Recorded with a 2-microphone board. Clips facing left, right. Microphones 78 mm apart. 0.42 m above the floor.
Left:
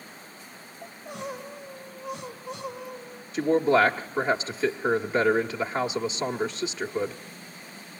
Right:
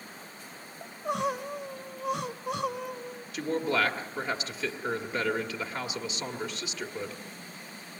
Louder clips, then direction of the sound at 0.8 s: Right 7 dB; 75° right (ahead or behind).